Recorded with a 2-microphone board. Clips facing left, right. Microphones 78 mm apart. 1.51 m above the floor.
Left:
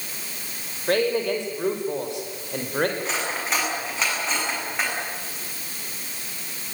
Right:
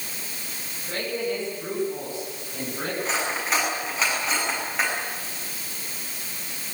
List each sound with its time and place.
0.9 s a man speaking: 85° left, 6 m; by 2.9 s 70° left (ahead or behind), 5.5 m
3.0 s cutlery clinking: centre (ahead or behind), 7.5 m